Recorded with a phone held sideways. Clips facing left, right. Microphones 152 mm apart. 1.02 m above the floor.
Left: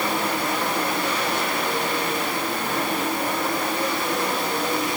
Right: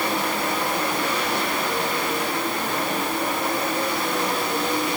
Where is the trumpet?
I don't hear a trumpet.